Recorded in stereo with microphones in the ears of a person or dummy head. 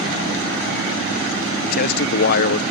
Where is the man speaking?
50° left (ahead or behind).